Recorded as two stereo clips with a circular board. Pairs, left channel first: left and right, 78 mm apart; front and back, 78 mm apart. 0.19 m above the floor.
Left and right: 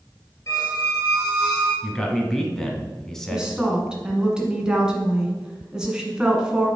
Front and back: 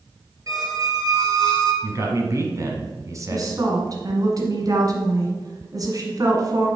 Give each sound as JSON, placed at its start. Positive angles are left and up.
{"t": 0.5, "sound": "a squeak", "azimuth_deg": 140, "distance_m": 2.5}
{"t": 1.8, "sound": "a man speaking", "azimuth_deg": 170, "distance_m": 1.3}
{"t": 3.3, "sound": "a woman speaking", "azimuth_deg": -170, "distance_m": 1.6}